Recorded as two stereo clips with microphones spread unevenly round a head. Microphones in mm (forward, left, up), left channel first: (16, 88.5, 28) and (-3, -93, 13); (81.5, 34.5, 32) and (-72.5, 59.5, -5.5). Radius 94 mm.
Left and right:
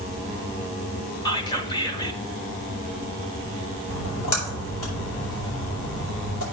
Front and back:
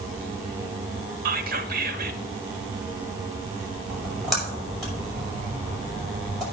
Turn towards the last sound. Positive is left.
turn(degrees=80)